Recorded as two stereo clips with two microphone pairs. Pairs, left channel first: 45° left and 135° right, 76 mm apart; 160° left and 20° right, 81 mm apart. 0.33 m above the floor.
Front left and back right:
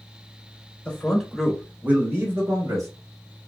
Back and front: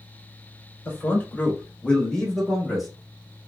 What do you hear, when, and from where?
0.8 s a man speaking: 115° left, 1.1 m; by 2.9 s 105° right, 1.4 m